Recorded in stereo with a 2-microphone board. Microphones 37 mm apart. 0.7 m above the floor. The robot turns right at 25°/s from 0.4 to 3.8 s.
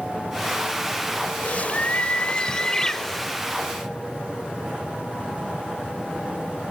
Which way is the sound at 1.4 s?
130° left.